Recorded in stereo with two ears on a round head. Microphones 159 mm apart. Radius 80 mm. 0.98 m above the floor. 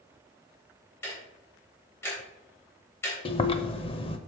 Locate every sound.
1.0 s ticking: 15° left (ahead or behind), 3.5 m
3.2 s chewing: 30° left (ahead or behind), 0.8 m